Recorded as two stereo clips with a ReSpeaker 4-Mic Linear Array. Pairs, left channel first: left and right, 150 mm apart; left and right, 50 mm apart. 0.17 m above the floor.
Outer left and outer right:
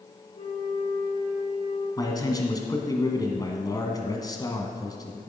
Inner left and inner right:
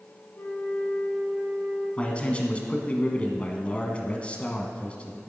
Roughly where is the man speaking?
Left.